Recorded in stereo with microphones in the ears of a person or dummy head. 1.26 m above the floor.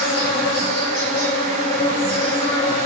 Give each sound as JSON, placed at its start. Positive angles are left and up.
{"t": 0.0, "sound": "an insect", "side_deg": 70, "distance_m": 2.0}